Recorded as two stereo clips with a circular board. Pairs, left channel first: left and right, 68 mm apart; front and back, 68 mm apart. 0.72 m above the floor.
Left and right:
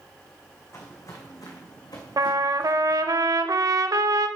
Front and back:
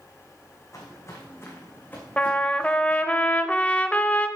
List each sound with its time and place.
0.7 s footsteps: 40° left, 3 m; by 3.0 s 80° left, 3.5 m
2.2 s a trumpet: 70° right, 0.7 m